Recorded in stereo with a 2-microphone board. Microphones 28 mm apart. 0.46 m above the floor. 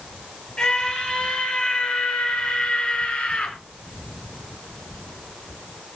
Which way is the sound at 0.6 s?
35° left (ahead or behind).